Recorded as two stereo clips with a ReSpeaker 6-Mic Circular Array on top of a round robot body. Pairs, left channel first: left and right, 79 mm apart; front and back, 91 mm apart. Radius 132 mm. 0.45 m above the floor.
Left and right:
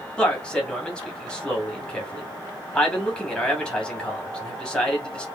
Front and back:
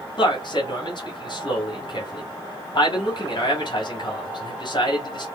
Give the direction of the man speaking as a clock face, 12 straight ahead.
12 o'clock.